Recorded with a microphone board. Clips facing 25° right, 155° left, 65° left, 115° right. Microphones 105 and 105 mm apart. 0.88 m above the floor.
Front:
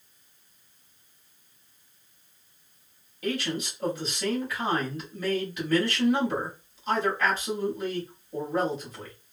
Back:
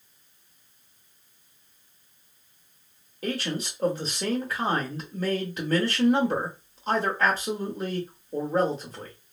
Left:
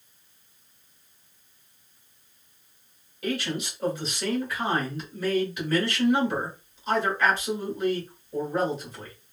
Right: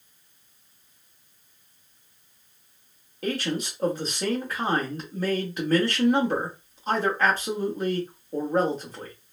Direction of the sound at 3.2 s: 155° right.